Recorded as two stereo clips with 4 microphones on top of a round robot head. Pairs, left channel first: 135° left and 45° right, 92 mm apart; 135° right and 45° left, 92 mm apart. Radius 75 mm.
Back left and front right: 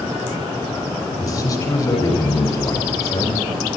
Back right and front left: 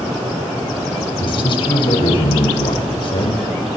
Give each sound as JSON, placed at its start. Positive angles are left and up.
{"t": 1.2, "sound": "a man speaking", "azimuth_deg": -170, "distance_m": 6.0}